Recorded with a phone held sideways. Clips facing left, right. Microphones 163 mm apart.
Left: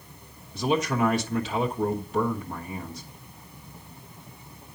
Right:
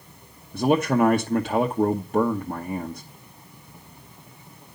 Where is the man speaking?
55° right (ahead or behind), 1.0 m.